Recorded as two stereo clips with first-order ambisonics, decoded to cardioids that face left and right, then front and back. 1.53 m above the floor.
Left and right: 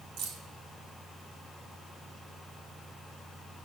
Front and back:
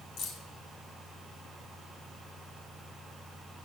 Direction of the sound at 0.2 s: 50° right.